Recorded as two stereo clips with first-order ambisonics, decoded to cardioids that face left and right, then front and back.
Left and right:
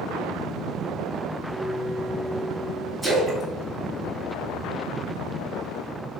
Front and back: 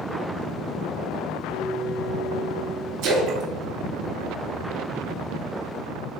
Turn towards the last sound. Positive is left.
turn(degrees=-175)